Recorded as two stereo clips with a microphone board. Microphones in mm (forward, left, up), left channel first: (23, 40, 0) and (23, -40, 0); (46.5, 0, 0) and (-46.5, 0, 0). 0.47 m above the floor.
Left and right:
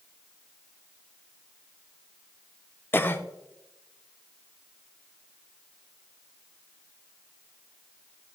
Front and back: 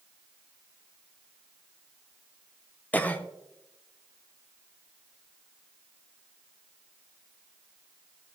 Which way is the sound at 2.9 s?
55° left.